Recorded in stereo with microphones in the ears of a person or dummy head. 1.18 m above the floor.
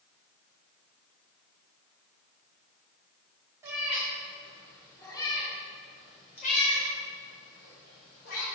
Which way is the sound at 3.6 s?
15° right (ahead or behind).